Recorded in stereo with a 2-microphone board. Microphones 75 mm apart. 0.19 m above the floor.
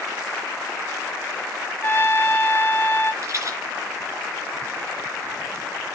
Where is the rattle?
50° right (ahead or behind), 3 m.